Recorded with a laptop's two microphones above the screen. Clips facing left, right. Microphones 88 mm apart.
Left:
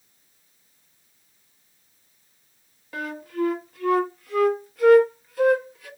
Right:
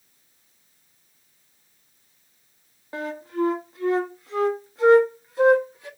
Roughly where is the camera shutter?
I don't hear a camera shutter.